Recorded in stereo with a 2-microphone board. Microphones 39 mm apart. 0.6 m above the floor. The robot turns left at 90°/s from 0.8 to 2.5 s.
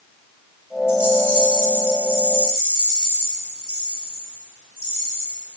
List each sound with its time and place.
0.9 s a rattle: 15° right, 5 m; by 5.4 s 165° right, 5 m